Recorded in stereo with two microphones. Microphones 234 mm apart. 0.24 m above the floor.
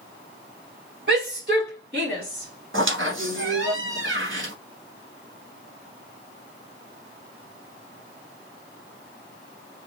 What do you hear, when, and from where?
1.1 s a shout: 45° right (ahead or behind), 1.9 m; by 3.7 s 35° right (ahead or behind), 2.5 m
2.7 s a squeak: 55° right (ahead or behind), 1.0 m